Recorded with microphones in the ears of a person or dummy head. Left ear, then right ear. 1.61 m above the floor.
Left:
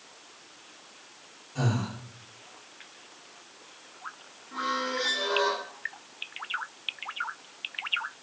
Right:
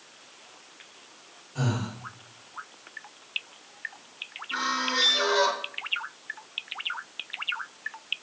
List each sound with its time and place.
1.6 s breathing: centre (ahead or behind), 7.5 m
4.5 s a squeak: 65° right (ahead or behind), 1.9 m